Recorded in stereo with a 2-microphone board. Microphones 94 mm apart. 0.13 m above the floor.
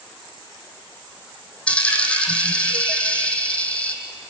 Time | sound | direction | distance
1.7 | a dropped coin | 15° left (ahead or behind) | 2.5 m